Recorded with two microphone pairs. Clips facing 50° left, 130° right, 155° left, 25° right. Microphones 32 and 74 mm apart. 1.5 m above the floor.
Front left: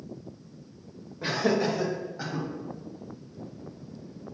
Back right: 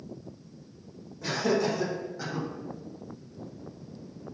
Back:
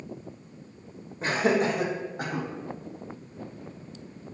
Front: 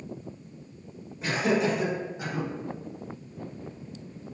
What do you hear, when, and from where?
1.2 s laughter: 105° left, 1.9 m; by 2.5 s 125° left, 3.5 m